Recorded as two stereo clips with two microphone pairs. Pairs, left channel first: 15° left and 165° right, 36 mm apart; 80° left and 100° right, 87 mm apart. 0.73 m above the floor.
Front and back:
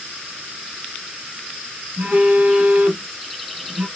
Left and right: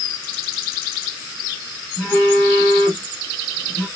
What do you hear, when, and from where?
2.0 s a phone buzzing: 145° left, 3.5 m